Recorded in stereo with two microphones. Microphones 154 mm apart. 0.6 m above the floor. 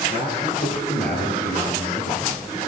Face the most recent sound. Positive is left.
turn(degrees=80)